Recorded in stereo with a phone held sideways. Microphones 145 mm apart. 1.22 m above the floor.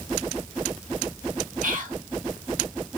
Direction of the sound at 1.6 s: 65° right (ahead or behind).